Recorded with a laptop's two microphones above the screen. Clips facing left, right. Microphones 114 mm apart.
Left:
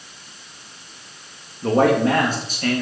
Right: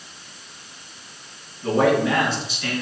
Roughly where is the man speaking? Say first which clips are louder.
Left 2 dB; left.